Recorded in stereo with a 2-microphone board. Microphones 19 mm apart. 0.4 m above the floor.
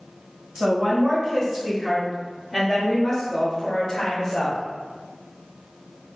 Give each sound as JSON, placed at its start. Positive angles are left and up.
{"t": 0.6, "sound": "a woman speaking", "side_deg": -40, "distance_m": 1.7}